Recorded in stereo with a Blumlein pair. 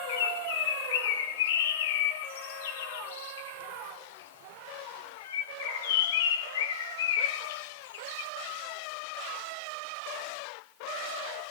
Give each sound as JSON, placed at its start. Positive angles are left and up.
{"t": 0.1, "sound": "a bird", "azimuth_deg": 55, "distance_m": 1.8}